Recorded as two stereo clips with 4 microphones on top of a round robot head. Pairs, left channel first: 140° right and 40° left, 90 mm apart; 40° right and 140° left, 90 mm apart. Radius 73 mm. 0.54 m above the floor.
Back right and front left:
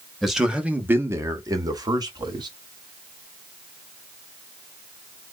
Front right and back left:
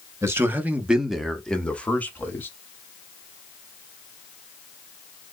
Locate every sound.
0.2 s a man speaking: 125° left, 0.9 m; by 2.5 s 25° left, 1.4 m